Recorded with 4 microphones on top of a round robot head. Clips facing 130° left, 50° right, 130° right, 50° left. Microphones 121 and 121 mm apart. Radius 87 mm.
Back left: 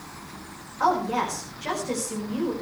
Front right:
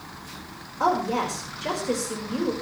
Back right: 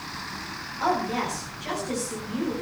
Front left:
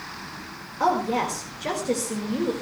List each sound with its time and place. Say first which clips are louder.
0.8 s a woman speaking: even, front left 3 dB; 15° left, 5 m